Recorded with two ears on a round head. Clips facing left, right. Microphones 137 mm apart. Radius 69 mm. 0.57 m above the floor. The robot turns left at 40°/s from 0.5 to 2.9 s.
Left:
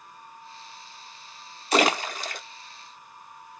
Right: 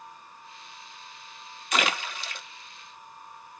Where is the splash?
30° left (ahead or behind), 0.5 m; by 2.4 s 40° left (ahead or behind), 0.5 m.